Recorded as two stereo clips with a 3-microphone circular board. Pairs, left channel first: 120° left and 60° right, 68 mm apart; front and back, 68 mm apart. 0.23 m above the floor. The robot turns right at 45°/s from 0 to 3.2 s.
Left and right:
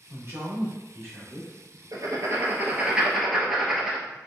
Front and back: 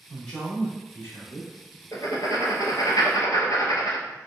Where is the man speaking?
80° right, 1.9 m; by 1.5 s 15° right, 1.9 m.